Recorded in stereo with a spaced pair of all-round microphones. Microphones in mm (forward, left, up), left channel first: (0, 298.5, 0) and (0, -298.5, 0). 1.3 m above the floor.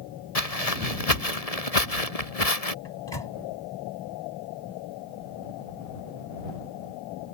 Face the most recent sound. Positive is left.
turn(degrees=45)  # may be behind; listen again after turning